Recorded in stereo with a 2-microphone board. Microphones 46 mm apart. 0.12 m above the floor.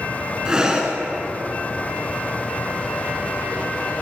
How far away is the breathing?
About 1.1 m.